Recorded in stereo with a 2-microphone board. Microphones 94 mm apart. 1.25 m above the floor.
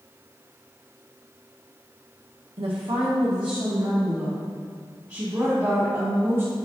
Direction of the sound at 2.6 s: 75° right (ahead or behind).